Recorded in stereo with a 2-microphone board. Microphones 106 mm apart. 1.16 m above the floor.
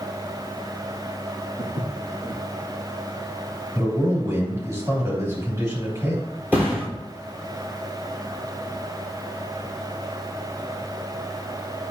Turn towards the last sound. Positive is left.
turn(degrees=-20)  # may be behind; listen again after turning